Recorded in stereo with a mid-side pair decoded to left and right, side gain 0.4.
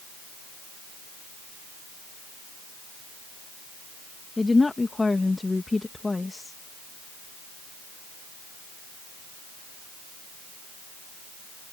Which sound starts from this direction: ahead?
A woman speaking, at 4.4 s.